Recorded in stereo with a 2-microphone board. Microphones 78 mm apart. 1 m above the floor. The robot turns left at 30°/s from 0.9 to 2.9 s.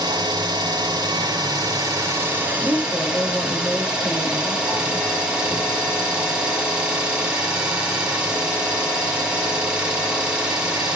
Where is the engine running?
105° right, 3.5 m; by 11.0 s 165° right, 3.5 m.